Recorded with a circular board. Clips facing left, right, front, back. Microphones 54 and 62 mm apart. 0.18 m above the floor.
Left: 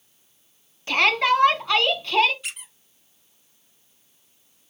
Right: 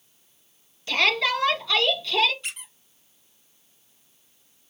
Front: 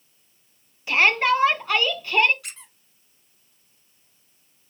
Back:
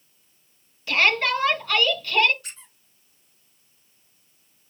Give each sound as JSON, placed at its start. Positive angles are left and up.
{"t": 0.9, "sound": "a shout", "azimuth_deg": 60, "distance_m": 1.7}
{"t": 2.4, "sound": "a squeak", "azimuth_deg": 5, "distance_m": 1.8}